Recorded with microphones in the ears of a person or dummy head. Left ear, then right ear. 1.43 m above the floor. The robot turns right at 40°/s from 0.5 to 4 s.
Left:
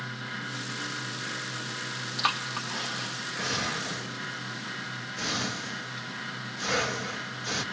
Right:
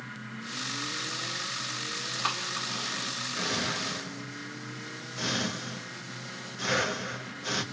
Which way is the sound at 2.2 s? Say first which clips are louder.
Left 4 dB; 20° left (ahead or behind).